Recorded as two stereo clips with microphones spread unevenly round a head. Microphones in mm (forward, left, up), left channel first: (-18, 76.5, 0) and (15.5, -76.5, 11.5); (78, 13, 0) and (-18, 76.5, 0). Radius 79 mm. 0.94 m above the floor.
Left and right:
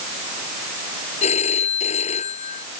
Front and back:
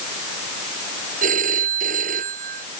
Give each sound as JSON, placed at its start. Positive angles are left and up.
{"t": 1.2, "sound": "a phone ringing", "azimuth_deg": 155}